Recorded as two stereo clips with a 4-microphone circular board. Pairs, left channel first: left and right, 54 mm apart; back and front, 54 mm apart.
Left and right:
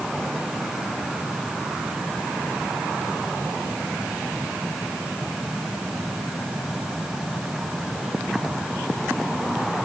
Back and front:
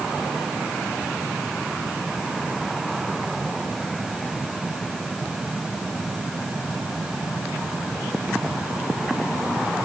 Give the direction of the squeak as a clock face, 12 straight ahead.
No squeak in this recording.